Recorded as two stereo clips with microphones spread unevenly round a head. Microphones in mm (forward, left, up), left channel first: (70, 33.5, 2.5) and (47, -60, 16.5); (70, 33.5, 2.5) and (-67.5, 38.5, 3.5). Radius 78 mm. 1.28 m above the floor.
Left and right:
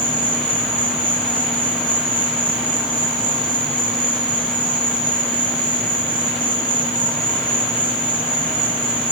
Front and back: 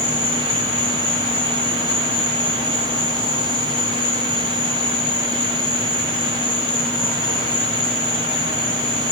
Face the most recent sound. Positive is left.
turn(degrees=-85)